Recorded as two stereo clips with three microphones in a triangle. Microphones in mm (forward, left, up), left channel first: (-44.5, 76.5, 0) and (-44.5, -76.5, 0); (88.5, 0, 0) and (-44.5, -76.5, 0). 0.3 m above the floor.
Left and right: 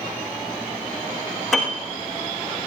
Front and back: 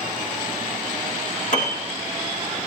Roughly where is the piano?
Ahead.